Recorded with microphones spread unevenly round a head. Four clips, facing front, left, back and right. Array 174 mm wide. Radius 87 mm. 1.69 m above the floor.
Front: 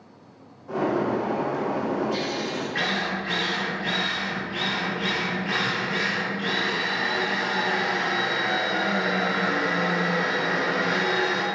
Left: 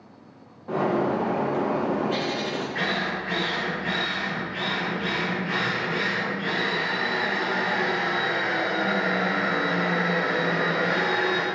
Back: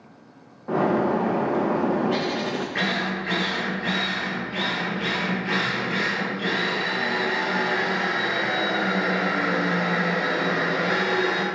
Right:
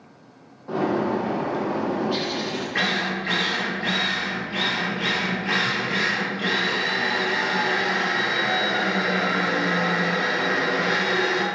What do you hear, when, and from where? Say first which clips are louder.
0.7 s a bird: right 1 dB, back 3 dB; straight behind, 0.9 m
2.8 s a drill: right 2 dB, back 1 dB; 100° right, 2.5 m